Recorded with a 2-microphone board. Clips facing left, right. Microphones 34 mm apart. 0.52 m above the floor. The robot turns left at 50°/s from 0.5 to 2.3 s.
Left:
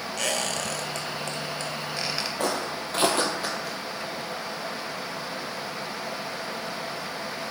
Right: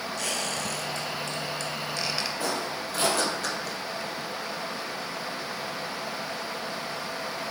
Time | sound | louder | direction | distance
0.2 | a squeak | left 4 dB | 85° left | 0.6 m
2.4 | footsteps | left 2 dB | 70° left (ahead or behind) | 1.2 m